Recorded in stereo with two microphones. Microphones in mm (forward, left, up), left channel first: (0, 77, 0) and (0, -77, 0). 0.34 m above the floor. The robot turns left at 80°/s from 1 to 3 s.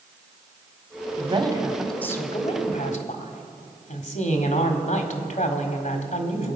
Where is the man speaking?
125° right, 1.6 m; by 6.6 s 90° left, 1.6 m.